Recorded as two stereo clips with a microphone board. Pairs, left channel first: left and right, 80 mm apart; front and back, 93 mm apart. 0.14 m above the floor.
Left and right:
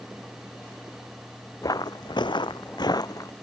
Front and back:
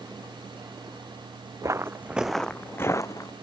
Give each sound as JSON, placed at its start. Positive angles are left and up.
{"t": 1.6, "sound": "footsteps", "azimuth_deg": 125}